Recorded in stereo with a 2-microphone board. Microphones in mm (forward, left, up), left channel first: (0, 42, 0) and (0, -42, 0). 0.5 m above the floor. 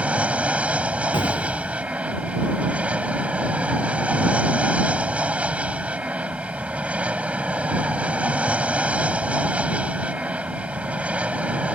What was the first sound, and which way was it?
An aircraft, 15° right (ahead or behind).